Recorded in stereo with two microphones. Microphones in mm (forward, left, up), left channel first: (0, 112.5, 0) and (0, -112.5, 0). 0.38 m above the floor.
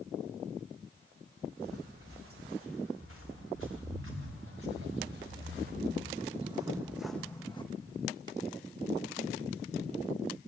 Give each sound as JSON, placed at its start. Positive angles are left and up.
{"t": 1.6, "sound": "footsteps", "side_deg": -75, "distance_m": 3.5}